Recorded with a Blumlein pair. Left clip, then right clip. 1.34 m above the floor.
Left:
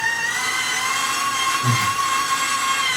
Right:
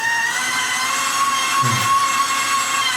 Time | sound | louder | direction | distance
0.0 | a machine running | right 2 dB | 15° right | 0.9 m
1.6 | breathing | right 4 dB | 50° right | 1.4 m